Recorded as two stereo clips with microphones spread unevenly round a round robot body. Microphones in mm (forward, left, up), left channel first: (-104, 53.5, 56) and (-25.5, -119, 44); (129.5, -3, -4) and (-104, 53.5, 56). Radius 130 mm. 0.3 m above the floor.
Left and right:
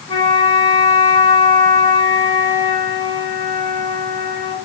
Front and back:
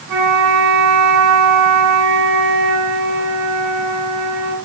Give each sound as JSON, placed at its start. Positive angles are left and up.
{"t": 0.1, "sound": "a flute", "azimuth_deg": 170, "distance_m": 4.5}